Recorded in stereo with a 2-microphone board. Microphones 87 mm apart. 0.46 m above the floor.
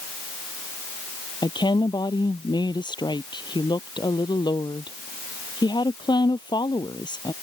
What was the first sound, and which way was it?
A woman speaking, 60° left (ahead or behind).